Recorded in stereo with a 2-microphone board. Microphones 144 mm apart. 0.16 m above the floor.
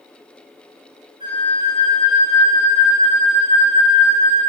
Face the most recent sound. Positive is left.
turn(degrees=-30)  # may be behind; listen again after turning